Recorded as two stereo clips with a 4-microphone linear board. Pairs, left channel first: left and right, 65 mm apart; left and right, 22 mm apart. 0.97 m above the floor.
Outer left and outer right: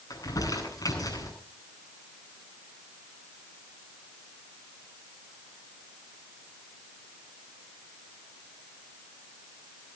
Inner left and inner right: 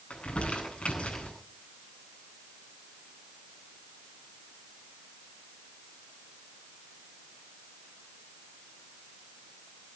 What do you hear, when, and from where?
0.1 s crumpling: 85° left, 9 m